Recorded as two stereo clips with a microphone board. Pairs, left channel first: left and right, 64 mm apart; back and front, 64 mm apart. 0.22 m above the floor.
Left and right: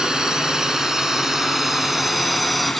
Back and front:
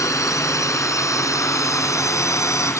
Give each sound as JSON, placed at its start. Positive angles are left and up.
{"t": 0.0, "sound": "a drone", "azimuth_deg": -165}